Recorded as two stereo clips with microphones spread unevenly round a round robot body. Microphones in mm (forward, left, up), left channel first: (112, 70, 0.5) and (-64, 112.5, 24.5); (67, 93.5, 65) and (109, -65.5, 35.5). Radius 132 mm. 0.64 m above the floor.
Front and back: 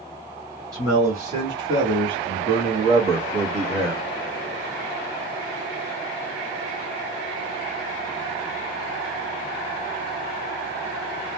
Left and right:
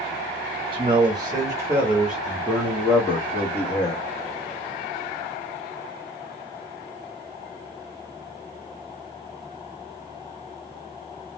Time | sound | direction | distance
0.7 | a man speaking | 115° right | 1.5 m